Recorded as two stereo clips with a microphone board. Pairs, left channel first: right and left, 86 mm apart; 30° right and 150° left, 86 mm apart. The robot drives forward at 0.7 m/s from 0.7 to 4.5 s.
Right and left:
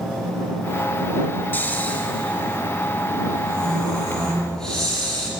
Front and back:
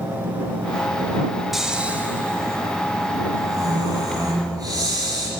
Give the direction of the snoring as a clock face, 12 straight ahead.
4 o'clock.